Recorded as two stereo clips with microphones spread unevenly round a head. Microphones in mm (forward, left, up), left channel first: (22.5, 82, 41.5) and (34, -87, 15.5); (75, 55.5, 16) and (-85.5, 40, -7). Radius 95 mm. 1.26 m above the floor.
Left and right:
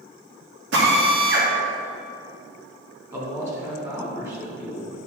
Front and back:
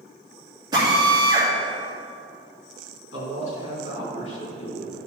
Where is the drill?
105° right, 2.5 m.